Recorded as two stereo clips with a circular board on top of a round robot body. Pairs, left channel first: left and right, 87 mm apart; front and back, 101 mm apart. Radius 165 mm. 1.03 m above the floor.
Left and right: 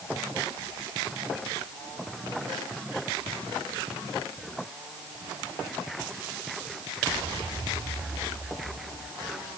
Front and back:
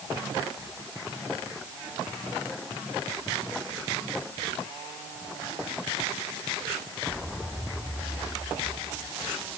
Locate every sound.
Only background noise.